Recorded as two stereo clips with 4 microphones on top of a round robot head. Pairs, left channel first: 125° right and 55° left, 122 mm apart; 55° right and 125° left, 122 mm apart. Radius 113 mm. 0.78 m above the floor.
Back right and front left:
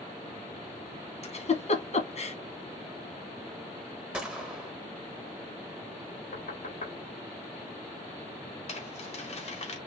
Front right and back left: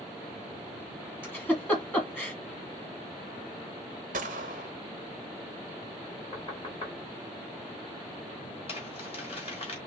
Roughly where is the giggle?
Behind right.